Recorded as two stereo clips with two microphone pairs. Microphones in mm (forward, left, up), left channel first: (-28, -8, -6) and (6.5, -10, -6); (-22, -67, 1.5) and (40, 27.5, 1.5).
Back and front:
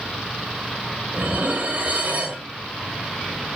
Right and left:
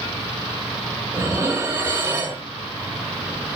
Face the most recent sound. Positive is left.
turn(degrees=-5)